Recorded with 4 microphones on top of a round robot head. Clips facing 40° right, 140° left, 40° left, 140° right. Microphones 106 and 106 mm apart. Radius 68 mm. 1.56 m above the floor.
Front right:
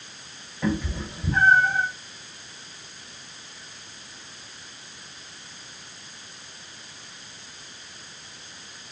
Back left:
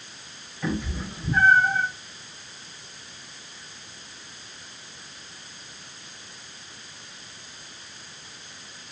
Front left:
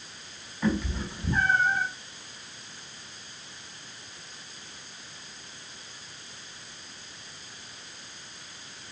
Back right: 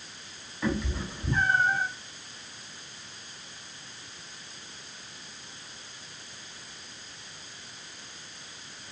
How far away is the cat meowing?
About 3.5 m.